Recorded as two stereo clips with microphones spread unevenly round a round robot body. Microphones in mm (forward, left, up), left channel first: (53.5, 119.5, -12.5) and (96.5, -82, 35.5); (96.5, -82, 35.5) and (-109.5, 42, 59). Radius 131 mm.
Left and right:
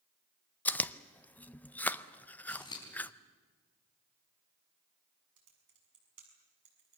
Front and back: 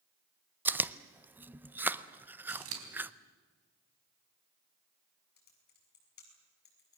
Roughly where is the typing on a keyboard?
Right.